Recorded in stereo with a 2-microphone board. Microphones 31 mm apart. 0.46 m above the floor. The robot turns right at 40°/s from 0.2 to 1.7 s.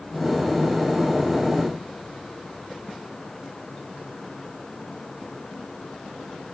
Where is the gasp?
No gasp in this recording.